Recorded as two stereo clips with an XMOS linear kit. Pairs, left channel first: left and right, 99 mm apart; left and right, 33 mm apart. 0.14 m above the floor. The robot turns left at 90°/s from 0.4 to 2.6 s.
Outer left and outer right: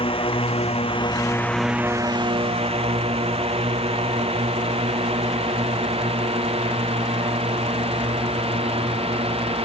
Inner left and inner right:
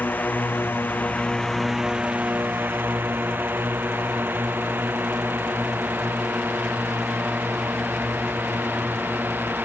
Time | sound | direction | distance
0.0 | a drone | 65° left (ahead or behind) | ?